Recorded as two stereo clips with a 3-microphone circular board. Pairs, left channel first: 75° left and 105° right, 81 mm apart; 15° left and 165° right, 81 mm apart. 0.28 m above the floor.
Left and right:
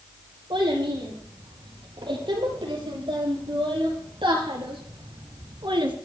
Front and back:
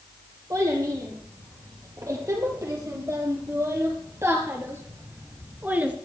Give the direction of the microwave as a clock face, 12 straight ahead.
I don't hear a microwave.